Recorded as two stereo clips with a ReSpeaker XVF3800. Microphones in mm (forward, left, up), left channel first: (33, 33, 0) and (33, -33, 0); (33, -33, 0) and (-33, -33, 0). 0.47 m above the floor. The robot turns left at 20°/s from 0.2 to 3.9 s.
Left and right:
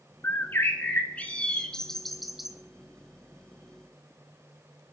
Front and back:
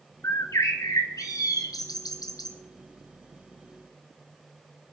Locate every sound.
0.2 s a bird: 40° left, 1.3 m; by 2.5 s 10° right, 1.3 m